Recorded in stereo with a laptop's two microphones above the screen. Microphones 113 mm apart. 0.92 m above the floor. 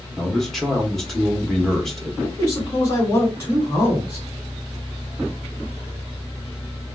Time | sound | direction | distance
0.2 | a man speaking | centre (ahead or behind) | 1.2 m
2.2 | a man speaking | 30° left (ahead or behind) | 1.8 m